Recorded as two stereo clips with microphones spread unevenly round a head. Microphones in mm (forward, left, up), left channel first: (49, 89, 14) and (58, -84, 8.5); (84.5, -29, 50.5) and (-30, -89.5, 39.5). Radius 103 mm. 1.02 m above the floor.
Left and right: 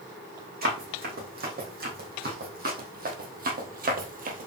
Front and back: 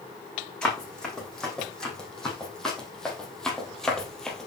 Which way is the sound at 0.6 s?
55° right.